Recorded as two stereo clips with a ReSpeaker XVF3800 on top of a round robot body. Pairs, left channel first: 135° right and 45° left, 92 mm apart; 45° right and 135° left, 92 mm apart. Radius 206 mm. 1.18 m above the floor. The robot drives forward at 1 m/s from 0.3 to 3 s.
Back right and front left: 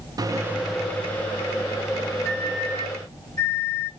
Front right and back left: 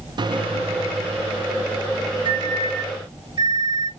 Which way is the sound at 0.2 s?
95° left.